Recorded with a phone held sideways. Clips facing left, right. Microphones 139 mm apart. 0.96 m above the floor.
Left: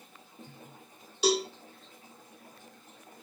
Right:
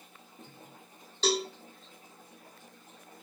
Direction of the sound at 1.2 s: 10° left (ahead or behind).